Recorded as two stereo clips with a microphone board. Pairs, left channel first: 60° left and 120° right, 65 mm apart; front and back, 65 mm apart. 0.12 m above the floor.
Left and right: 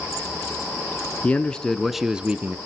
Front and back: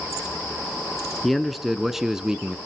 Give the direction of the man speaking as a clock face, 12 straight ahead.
9 o'clock.